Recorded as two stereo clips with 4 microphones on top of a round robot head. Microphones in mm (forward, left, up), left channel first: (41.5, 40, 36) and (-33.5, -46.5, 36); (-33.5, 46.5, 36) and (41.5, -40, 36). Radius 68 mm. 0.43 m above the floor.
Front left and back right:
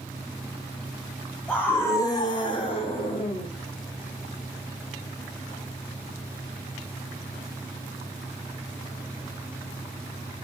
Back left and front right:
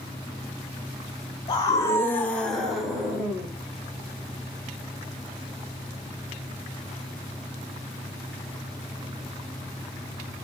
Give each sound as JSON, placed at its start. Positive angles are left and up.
{"t": 1.5, "sound": "a scream", "azimuth_deg": 120, "distance_m": 1.1}